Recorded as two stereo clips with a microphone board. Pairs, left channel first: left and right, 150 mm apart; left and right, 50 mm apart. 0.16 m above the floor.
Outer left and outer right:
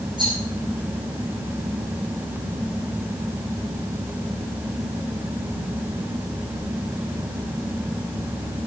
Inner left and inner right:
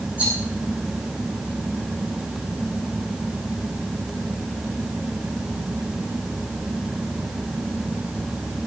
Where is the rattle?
30° right (ahead or behind), 7.5 m.